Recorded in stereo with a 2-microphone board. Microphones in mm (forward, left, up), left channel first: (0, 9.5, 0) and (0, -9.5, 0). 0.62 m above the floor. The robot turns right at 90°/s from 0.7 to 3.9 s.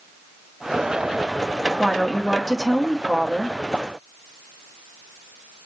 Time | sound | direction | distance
1.8 | a woman speaking | 30° left | 1.3 m